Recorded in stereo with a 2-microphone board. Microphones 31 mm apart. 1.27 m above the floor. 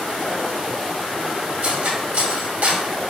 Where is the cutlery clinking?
60° right (ahead or behind), 1.8 m.